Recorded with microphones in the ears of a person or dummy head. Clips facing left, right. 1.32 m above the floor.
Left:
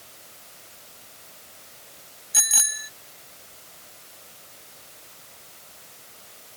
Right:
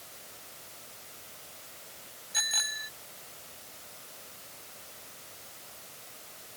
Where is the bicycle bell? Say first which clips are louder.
Left 4 dB; 50° left (ahead or behind).